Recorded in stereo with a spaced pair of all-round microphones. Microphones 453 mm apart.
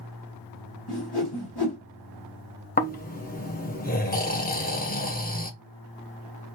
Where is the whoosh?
55° left (ahead or behind), 1.7 m.